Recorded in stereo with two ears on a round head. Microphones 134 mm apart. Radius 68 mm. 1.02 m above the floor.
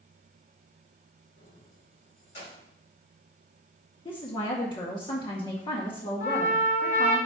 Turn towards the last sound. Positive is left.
turn(degrees=80)